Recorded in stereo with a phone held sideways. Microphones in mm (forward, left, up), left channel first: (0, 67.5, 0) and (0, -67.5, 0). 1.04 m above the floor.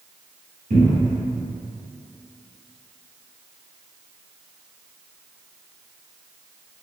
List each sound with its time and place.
0.7 s a cupboard door: 65° right (ahead or behind), 1.3 m